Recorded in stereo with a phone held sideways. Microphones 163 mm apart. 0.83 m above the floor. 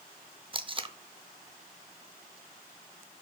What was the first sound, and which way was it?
Tape being pulled, 30° right (ahead or behind).